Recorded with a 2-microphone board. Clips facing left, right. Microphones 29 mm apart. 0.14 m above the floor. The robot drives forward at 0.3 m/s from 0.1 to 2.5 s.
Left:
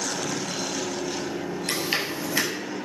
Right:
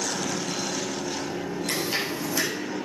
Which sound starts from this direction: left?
Chewing, at 1.7 s.